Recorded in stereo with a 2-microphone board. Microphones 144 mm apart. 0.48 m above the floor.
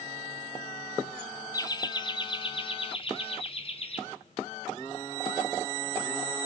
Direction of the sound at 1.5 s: 25° left (ahead or behind).